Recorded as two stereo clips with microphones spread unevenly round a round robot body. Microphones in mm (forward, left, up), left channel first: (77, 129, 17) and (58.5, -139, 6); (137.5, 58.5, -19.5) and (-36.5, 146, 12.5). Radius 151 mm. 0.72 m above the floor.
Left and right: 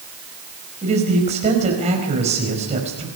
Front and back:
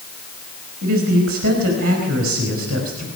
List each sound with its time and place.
0.8 s a man speaking: 165° right, 5 m